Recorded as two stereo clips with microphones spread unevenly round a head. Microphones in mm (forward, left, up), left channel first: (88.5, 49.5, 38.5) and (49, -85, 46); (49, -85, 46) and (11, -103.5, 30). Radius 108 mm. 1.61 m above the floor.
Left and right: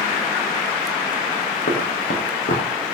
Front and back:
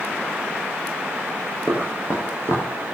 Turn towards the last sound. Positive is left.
turn(degrees=65)